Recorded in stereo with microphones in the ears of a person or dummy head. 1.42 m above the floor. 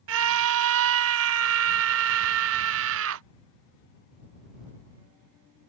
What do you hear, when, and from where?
0.1 s a scream: 65° right (ahead or behind)